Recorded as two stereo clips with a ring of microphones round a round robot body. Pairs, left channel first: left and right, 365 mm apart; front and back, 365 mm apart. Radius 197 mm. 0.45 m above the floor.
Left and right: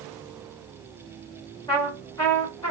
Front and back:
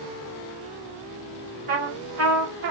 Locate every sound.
1.7 s a trumpet: 160° left, 1.5 m